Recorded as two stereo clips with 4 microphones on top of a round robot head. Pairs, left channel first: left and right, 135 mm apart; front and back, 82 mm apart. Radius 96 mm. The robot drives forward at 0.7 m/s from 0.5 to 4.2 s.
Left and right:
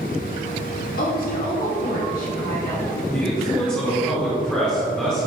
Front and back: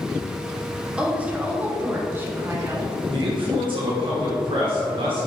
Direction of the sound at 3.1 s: 170° left.